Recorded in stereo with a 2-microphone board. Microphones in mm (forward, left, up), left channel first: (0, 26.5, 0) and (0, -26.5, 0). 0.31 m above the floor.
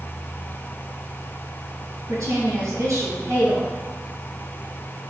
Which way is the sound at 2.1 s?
65° right (ahead or behind).